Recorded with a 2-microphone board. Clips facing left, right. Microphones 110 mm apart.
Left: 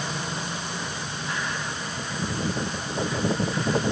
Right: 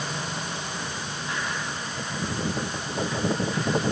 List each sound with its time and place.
Only background noise.